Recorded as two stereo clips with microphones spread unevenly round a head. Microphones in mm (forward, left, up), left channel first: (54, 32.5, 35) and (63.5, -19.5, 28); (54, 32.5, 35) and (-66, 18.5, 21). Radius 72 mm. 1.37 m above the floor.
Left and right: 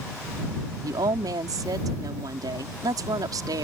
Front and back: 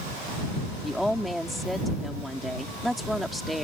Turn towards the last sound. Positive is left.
turn(degrees=-80)